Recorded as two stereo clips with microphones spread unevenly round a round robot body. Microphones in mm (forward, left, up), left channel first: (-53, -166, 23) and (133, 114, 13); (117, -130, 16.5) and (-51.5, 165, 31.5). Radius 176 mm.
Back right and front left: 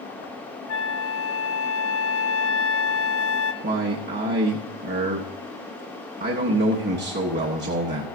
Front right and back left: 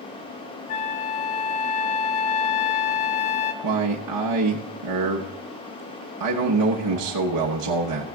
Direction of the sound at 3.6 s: 110° left.